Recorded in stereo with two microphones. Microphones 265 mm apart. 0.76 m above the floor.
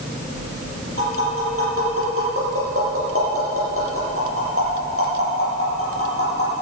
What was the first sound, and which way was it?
Tapping, 55° right (ahead or behind).